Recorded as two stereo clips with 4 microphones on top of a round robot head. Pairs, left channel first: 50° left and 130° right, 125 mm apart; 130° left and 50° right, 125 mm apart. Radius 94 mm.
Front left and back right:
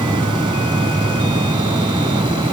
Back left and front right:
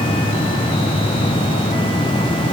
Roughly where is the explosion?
No explosion in this recording.